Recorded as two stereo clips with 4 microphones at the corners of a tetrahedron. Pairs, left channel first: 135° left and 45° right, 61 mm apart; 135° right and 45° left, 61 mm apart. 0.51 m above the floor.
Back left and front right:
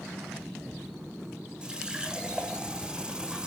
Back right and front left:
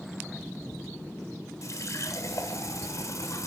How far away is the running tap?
About 1.2 m.